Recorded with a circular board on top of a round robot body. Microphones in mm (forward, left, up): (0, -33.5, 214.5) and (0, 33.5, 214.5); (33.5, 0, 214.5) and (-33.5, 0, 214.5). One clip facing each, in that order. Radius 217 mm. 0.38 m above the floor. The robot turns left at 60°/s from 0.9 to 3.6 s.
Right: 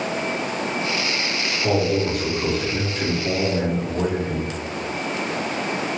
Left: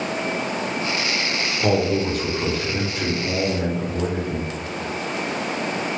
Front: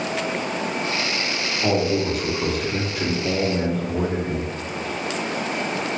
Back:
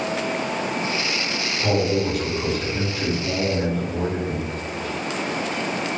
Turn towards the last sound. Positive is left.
turn(degrees=-35)